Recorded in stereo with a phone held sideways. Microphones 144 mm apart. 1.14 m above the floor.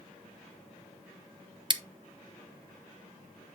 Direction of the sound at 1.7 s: 35° right (ahead or behind).